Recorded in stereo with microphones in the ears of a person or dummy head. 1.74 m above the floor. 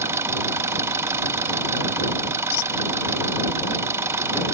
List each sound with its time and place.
0.0 s an engine running: 15° right (ahead or behind)
2.5 s a squeak: 80° left